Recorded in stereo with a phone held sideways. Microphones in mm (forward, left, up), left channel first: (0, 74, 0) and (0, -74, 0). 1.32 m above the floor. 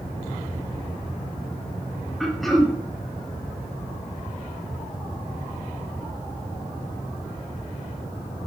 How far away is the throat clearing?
About 0.7 m.